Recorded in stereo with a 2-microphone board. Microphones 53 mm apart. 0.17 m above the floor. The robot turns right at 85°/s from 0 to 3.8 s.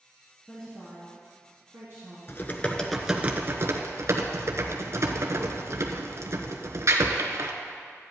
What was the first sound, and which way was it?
A woman speaking, 25° left (ahead or behind).